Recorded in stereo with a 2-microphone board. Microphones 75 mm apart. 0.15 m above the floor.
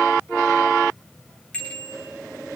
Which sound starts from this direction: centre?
A bicycle bell, at 1.5 s.